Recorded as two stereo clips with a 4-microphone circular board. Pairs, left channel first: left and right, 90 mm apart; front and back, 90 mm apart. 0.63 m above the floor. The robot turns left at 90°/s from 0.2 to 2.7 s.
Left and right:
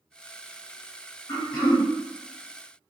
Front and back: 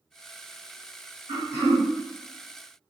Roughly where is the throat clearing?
Behind left.